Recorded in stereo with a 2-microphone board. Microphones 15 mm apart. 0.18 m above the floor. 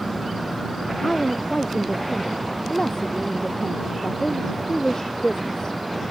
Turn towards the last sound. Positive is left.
turn(degrees=40)  # may be behind; listen again after turning